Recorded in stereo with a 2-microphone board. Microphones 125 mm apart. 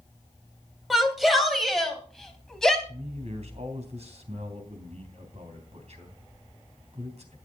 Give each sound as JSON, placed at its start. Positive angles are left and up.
{"t": 0.9, "sound": "a shout", "side_deg": 0, "distance_m": 2.5}
{"t": 2.9, "sound": "a man speaking", "side_deg": -60, "distance_m": 3.0}